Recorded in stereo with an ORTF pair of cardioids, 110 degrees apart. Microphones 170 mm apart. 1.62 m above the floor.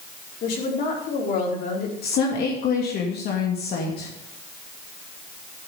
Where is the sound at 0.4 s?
65° left, 4.5 m.